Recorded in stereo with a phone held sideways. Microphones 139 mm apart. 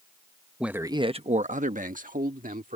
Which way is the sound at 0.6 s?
5° right (ahead or behind).